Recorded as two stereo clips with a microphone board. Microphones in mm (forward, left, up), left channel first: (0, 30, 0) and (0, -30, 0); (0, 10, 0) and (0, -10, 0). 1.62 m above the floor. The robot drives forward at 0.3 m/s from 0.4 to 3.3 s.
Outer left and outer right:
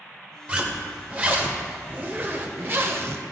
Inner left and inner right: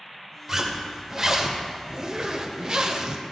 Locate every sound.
0.5 s a zipper: 25° right (ahead or behind), 1.5 m; by 3.2 s 45° right (ahead or behind), 0.9 m